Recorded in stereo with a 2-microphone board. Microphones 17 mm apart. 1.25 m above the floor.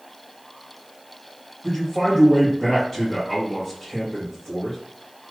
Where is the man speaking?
20° left (ahead or behind), 1.5 m.